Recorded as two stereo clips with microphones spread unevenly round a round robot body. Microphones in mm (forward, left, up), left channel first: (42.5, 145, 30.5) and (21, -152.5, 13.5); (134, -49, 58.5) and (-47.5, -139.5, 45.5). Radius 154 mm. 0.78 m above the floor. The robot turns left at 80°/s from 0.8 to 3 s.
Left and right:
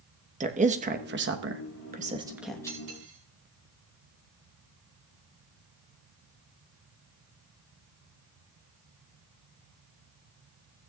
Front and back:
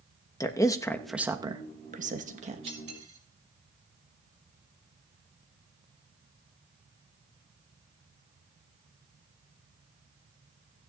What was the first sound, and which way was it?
A woman speaking, 45° right.